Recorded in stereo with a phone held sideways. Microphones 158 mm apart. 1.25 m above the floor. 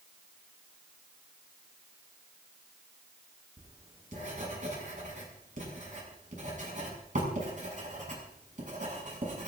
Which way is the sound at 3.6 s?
55° right (ahead or behind).